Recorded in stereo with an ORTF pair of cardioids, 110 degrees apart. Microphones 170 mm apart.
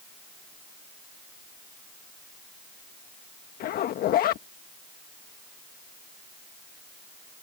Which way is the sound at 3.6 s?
65° left.